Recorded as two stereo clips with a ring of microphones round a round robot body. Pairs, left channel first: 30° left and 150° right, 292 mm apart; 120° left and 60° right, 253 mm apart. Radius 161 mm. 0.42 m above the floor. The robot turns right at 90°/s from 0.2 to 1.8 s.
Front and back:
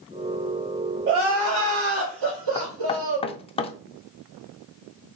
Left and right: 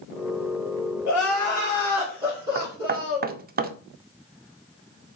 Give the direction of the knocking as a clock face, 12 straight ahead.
1 o'clock.